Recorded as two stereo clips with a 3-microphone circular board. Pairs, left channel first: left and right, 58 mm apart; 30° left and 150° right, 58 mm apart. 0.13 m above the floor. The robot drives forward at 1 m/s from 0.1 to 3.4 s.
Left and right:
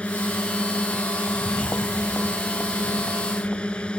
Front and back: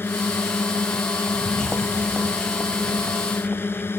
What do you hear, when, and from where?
0.0 s a drone: 35° left; by 4.0 s 25° left
1.3 s footsteps: 110° left; by 3.9 s 155° left